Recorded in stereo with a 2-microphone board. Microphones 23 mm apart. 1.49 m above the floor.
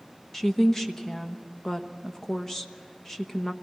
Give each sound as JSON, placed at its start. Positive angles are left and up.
{"t": 0.3, "sound": "a woman speaking", "side_deg": 15, "distance_m": 1.2}